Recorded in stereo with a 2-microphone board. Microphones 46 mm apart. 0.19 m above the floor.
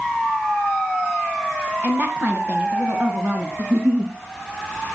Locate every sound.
1.8 s a woman speaking: 35° right (ahead or behind), 1.7 m
3.6 s a giggle: 40° right (ahead or behind), 2.5 m